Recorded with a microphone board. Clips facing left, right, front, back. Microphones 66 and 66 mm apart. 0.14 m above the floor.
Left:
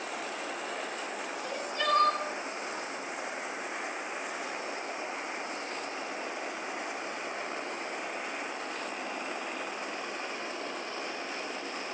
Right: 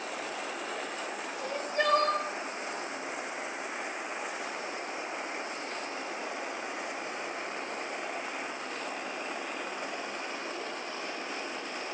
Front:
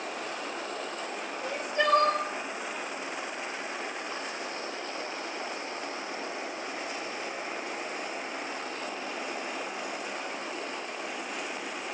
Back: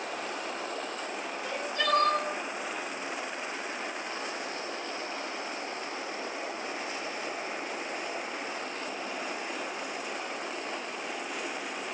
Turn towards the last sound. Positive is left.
turn(degrees=-60)